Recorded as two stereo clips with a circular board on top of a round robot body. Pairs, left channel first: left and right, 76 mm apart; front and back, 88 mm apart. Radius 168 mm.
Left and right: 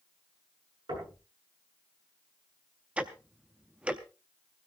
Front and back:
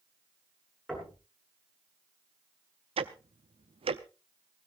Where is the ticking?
165° right, 0.5 m.